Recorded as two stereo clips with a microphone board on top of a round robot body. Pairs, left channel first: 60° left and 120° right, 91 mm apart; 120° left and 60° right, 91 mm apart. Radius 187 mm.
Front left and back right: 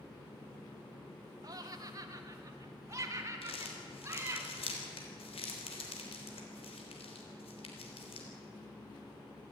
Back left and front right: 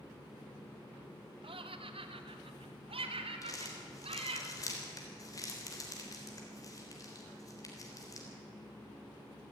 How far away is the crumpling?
About 3.5 m.